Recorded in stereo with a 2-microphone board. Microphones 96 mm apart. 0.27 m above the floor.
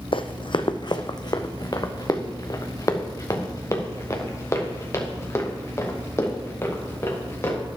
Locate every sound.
0.1 s running footsteps: 65° left (ahead or behind), 1.0 m; by 7.6 s 25° left (ahead or behind), 5 m